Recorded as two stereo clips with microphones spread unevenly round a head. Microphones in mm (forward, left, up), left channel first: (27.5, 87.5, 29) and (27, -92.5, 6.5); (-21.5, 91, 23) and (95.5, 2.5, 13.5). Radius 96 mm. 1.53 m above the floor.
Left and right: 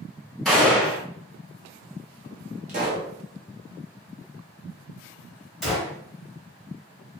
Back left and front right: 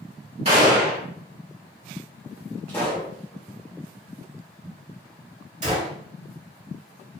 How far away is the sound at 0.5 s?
About 1.8 m.